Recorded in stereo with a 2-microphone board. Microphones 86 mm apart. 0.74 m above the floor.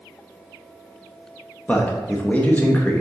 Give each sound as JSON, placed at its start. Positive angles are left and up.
{"t": 1.7, "sound": "a man speaking", "side_deg": 20, "distance_m": 0.6}